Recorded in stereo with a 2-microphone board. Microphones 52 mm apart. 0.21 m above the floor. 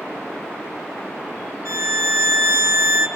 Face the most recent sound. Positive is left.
turn(degrees=-65)  # may be behind; listen again after turning